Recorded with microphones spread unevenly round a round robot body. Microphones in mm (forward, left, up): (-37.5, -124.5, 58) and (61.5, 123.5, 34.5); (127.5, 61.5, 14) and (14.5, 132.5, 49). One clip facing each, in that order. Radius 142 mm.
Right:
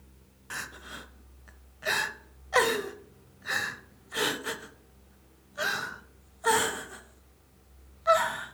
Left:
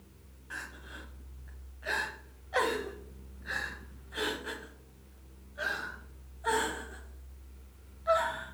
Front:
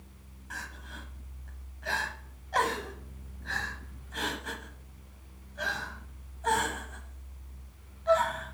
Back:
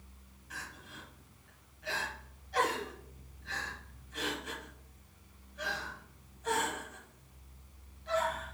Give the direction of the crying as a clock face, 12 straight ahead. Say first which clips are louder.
Right 3 dB, front 4 dB; 3 o'clock.